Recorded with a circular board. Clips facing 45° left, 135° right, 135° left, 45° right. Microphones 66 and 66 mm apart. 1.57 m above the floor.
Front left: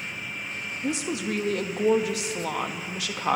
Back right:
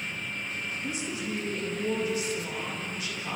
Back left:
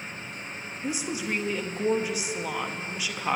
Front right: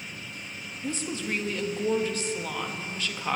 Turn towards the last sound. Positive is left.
turn(degrees=55)